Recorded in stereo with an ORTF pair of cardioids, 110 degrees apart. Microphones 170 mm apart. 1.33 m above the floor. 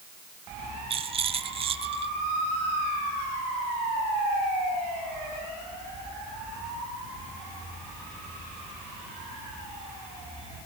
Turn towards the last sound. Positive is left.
turn(degrees=-35)